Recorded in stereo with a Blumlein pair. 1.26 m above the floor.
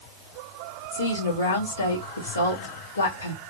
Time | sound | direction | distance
0.9 | a woman speaking | 65° left | 2 m